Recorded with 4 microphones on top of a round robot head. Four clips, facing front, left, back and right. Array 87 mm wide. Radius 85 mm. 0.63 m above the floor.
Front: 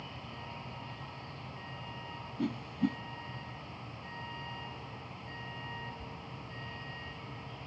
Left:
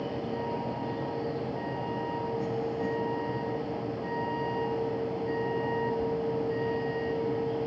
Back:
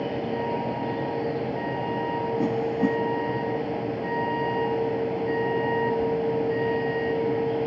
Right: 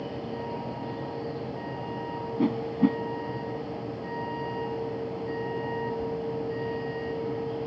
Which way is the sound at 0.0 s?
175° left.